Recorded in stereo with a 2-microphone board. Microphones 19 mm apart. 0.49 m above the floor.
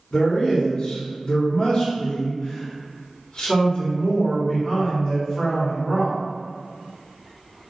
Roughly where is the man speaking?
Left.